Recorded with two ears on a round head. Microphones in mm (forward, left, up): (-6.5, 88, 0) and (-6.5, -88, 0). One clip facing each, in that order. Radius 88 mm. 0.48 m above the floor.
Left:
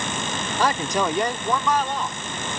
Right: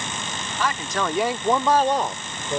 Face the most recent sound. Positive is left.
turn(degrees=-45)  # may be behind; listen again after turning